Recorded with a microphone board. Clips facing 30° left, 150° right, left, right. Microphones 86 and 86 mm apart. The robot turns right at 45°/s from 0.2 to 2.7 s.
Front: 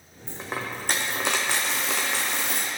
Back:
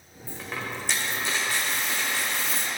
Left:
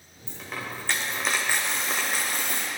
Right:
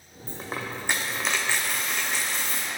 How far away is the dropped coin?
About 1.4 m.